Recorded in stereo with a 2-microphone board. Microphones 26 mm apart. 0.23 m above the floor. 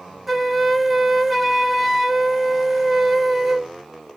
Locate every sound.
0.3 s a flute: 10° right (ahead or behind), 0.6 m